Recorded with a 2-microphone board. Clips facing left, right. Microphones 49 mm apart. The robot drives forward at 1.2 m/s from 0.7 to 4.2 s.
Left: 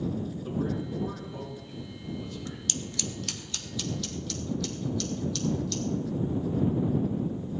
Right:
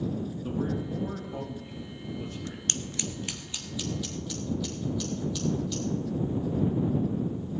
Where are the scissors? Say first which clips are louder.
Even; 40° right (ahead or behind), 0.7 m; by 5.8 s 10° right (ahead or behind), 2.5 m.